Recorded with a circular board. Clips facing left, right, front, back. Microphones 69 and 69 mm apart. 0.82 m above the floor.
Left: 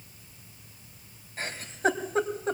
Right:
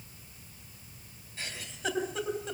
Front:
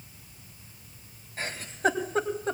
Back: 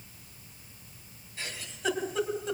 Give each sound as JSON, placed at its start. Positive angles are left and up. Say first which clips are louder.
{"t": 1.4, "sound": "a giggle", "louder": "left 9 dB, front 8 dB", "azimuth_deg": 45, "distance_m": 2.5}